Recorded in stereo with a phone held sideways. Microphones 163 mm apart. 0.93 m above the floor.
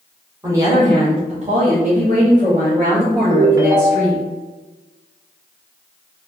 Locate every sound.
0.4 s a woman speaking: 15° right (ahead or behind), 0.8 m; by 4.2 s 40° right (ahead or behind), 1.9 m
3.3 s a ringtone: 25° right (ahead or behind), 0.7 m